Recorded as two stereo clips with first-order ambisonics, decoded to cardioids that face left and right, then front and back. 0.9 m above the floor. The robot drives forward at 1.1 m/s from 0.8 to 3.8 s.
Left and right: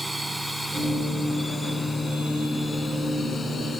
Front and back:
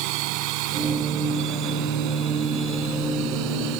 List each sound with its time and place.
0.0 s a drone: straight behind; by 3.8 s 160° left